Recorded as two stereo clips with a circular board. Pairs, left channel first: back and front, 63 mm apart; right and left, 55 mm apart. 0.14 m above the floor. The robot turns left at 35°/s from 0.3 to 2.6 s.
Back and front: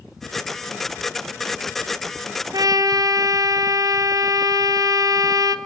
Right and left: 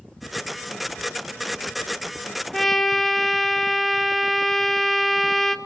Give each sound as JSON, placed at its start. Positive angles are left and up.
{"t": 2.5, "sound": "a trumpet", "azimuth_deg": 0, "distance_m": 1.0}